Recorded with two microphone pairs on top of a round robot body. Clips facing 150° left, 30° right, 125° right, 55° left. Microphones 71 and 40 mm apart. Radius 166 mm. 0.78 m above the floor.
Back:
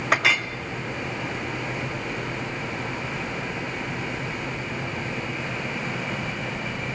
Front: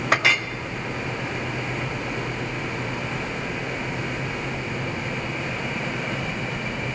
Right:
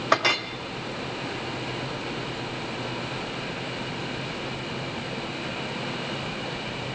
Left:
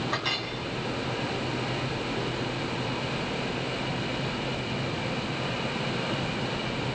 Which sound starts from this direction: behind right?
A clink, at 0.1 s.